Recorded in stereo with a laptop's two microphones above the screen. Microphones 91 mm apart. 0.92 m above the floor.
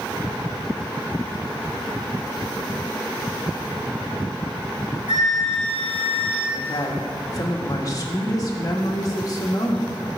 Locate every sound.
5.1 s a flute: 70° right (ahead or behind), 4 m
6.5 s a woman speaking: 40° left (ahead or behind), 1.6 m